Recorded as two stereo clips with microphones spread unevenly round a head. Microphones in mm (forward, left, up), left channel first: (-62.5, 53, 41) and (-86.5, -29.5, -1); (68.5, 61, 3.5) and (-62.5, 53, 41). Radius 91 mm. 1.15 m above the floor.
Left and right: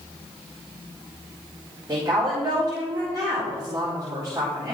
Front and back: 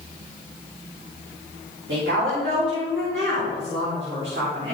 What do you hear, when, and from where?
1.9 s a woman speaking: 150° right, 4 m